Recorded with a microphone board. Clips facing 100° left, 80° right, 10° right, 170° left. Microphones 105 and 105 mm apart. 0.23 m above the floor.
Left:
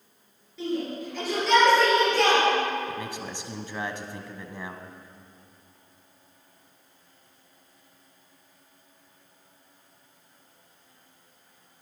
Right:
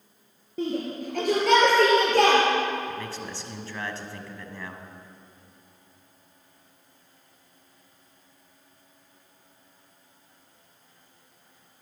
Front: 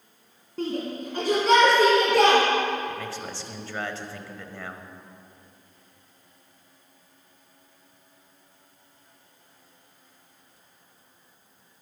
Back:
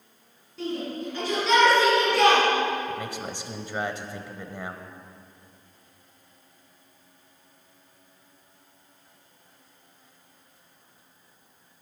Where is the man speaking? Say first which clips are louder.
Even, back 1 dB; 130° left, 1.0 m.